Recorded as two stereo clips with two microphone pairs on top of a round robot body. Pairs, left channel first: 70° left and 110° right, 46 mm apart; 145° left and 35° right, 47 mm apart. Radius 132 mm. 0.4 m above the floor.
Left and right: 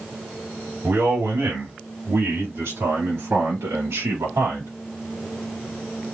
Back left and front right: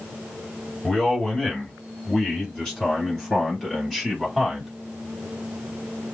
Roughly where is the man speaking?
Behind right.